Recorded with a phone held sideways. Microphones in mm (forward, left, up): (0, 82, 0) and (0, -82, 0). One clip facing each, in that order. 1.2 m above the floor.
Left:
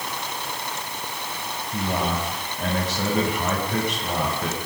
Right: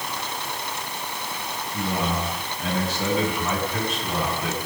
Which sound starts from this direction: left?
A man speaking, at 1.7 s.